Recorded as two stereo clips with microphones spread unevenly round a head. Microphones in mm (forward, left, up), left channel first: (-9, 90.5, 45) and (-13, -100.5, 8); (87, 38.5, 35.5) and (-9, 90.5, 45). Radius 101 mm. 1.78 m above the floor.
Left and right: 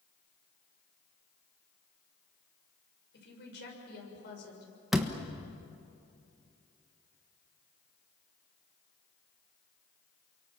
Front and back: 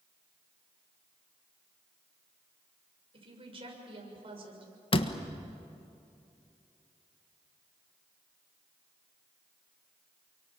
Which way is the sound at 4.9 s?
5° left.